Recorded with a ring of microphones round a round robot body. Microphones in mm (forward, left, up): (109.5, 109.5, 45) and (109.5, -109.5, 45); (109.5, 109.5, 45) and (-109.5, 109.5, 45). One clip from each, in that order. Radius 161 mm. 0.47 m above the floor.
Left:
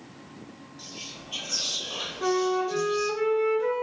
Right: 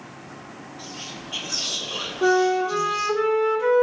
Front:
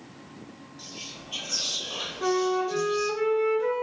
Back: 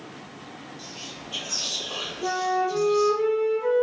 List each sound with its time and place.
0.8 s whispering: 70° left, 1.2 m
2.2 s a flute: 25° right, 0.5 m